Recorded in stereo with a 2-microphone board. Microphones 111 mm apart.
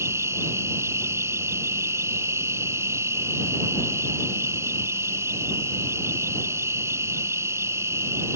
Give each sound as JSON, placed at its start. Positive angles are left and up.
{"t": 0.0, "sound": "an insect", "side_deg": -25}